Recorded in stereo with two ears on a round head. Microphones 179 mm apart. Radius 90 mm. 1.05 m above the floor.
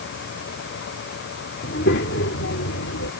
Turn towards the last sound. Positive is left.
turn(degrees=90)